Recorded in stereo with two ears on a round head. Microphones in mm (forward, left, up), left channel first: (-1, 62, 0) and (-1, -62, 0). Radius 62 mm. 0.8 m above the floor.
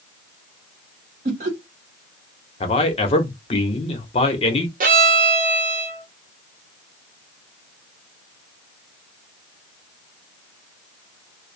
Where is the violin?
60° right (ahead or behind), 1.0 m.